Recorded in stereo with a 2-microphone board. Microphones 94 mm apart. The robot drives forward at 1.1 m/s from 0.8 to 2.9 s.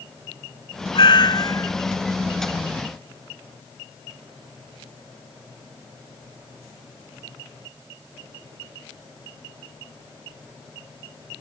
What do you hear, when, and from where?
0.9 s a cat meowing: 60° left (ahead or behind); by 1.7 s 35° left (ahead or behind)